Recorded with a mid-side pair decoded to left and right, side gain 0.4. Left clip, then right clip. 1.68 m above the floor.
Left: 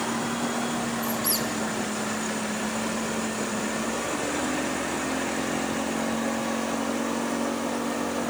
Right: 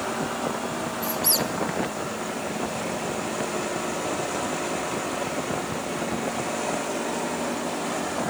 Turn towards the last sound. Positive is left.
turn(degrees=-45)